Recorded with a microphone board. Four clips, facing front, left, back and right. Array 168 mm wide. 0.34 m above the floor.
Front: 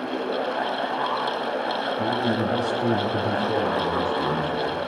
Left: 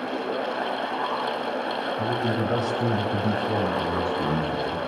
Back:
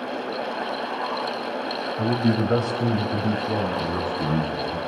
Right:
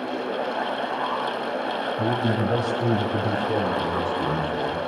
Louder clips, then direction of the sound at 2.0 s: Right 2 dB, back 4 dB; 155° right.